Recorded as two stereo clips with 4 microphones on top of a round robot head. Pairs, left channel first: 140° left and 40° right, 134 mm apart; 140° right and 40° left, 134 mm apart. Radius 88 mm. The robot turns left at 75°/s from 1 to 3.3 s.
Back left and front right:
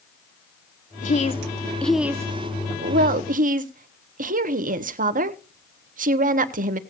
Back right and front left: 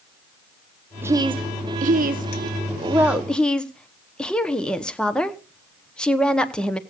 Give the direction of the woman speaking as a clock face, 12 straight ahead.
8 o'clock.